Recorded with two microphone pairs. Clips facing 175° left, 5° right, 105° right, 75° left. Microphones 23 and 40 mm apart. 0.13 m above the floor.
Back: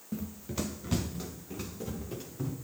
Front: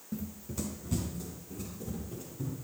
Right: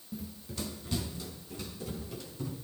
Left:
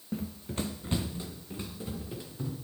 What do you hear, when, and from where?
0.1 s running footsteps: 110° left, 0.7 m; by 2.5 s 140° left, 4 m